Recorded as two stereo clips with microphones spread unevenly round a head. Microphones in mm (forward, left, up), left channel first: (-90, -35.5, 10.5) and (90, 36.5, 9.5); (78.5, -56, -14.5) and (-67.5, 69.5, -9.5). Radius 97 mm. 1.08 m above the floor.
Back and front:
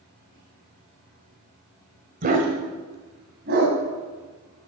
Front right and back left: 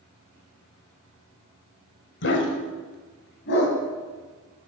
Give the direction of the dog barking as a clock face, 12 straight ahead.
1 o'clock.